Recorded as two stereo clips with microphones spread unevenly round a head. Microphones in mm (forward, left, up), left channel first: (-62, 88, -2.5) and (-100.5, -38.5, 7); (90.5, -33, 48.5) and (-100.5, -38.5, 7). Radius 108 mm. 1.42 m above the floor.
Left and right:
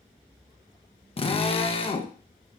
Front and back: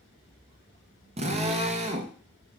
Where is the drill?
120° left, 1.4 m.